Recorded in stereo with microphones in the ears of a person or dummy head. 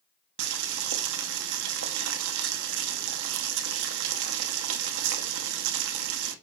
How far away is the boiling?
About 1.2 m.